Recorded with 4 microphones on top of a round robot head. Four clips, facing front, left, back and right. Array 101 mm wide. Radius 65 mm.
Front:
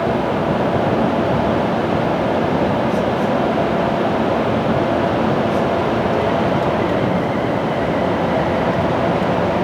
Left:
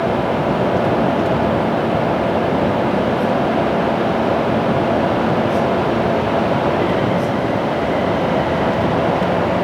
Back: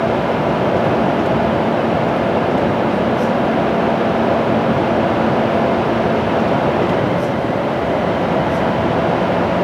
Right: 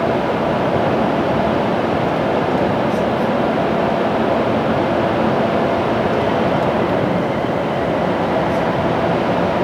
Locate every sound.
Only background noise.